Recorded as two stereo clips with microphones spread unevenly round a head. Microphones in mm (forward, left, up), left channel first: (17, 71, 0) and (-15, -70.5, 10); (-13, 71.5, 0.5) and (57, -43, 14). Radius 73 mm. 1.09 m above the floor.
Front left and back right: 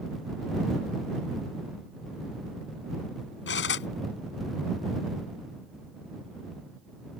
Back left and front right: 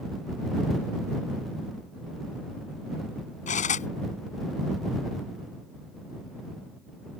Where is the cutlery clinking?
90° left.